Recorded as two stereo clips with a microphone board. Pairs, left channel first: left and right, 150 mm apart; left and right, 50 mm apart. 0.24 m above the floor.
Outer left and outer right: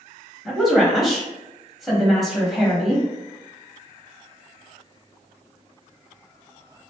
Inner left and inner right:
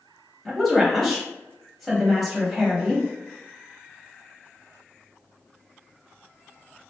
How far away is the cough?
I don't hear a cough.